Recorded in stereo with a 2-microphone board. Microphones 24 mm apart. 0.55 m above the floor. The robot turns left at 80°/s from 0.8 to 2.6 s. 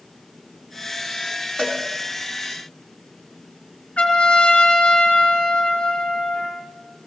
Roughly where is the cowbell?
Left.